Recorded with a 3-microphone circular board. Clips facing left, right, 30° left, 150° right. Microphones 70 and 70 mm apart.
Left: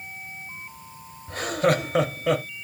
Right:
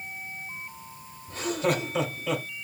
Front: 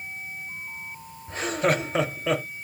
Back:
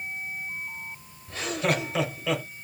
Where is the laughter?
80° left, 2.5 m.